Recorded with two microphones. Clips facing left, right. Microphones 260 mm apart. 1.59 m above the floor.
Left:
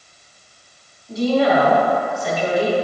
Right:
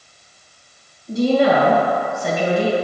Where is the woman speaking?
50° right (ahead or behind), 1.9 m.